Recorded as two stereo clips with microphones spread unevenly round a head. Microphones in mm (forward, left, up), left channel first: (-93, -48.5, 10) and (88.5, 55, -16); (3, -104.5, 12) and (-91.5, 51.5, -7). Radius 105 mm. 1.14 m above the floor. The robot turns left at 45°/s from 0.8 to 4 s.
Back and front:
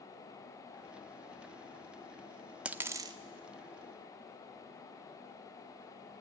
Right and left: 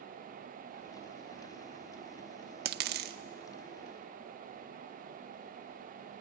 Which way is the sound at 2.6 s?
120° left.